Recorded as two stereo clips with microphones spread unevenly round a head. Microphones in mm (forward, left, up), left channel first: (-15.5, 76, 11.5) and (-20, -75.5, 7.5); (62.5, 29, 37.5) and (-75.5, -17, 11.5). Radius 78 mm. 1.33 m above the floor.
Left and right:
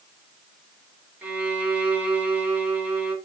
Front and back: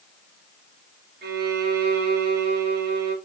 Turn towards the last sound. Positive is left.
turn(degrees=-170)